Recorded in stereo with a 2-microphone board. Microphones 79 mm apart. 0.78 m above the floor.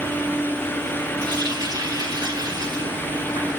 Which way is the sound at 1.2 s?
70° right (ahead or behind).